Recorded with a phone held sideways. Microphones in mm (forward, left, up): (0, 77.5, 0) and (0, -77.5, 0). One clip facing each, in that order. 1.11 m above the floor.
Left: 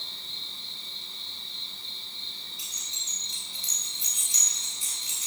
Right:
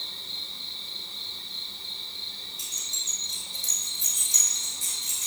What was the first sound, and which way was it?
An insect, 70° right (ahead or behind).